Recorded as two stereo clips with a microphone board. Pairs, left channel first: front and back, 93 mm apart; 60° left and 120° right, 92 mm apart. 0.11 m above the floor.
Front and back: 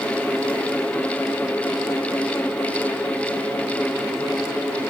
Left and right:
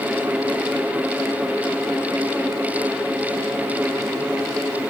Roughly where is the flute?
No flute in this recording.